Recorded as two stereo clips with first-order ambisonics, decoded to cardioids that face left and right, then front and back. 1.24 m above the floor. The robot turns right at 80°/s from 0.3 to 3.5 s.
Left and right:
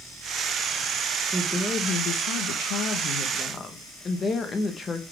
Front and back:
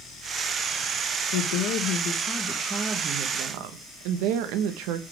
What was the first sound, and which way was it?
A woman speaking, 10° right.